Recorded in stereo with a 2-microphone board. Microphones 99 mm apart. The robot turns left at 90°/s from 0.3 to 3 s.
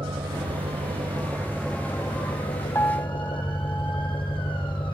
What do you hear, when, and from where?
0.0 s an engine running: 60° right; by 4.9 s 60° left
2.8 s a piano: 30° left (ahead or behind); by 4.2 s 25° left (ahead or behind)